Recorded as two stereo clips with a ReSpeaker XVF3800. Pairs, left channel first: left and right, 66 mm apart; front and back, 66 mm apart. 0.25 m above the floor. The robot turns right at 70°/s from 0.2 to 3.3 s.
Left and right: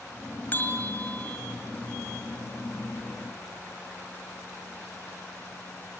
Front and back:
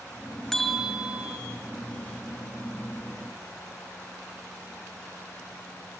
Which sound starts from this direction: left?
A bell, at 0.5 s.